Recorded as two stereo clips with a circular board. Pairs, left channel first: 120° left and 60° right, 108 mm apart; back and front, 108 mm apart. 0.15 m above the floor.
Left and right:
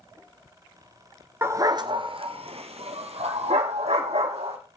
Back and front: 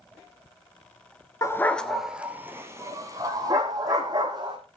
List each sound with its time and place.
1.4 s a dog barking: 125° right, 1.0 m; by 4.6 s 45° right, 3.5 m